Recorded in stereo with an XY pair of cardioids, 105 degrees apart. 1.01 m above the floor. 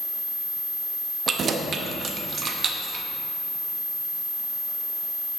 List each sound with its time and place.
1.3 s keys jangling: 50° right, 1.0 m